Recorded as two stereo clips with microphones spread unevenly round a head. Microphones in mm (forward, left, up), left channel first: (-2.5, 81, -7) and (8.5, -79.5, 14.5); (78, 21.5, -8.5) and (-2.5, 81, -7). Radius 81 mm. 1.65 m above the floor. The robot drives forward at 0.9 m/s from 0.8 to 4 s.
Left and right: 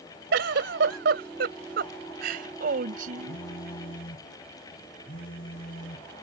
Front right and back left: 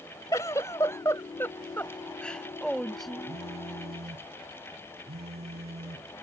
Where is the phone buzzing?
130° left; by 6.2 s 135° left.